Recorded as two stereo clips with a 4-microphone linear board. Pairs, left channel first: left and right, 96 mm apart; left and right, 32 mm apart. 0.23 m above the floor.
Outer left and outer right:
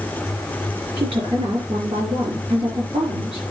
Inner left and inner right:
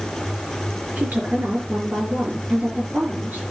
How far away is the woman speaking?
About 4 m.